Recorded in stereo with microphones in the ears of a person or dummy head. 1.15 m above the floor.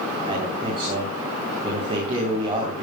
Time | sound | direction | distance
0.3 | a man speaking | 30° right (ahead or behind) | 4 m